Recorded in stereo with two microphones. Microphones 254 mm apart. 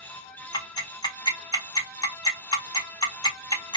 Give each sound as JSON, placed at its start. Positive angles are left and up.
{"t": 0.5, "sound": "ticking", "side_deg": 15, "distance_m": 1.5}